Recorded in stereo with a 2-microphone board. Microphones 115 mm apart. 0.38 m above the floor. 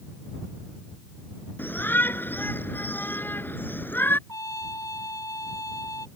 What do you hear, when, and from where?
1.6 s a shout: 20° left (ahead or behind)
4.3 s a trumpet: 30° left (ahead or behind)